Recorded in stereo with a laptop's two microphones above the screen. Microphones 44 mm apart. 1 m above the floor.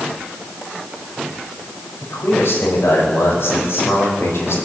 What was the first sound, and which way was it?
A man speaking, 85° left.